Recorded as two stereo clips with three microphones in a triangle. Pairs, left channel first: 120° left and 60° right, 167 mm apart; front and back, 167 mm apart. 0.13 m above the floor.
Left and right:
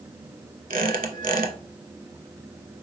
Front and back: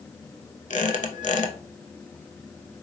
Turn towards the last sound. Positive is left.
turn(degrees=-35)